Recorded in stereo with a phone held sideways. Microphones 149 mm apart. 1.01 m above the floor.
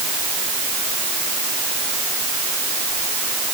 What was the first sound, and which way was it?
Only background noise.